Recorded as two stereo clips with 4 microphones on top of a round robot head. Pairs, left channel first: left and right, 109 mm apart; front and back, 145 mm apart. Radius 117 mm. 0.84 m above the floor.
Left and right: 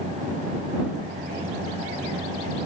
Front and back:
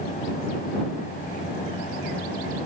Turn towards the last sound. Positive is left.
No sound to turn to.